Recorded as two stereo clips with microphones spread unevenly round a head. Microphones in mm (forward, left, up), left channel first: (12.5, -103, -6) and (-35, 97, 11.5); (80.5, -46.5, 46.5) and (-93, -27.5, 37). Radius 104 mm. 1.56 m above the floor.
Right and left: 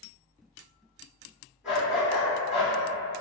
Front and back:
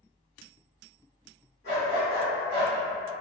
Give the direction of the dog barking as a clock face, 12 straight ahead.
11 o'clock.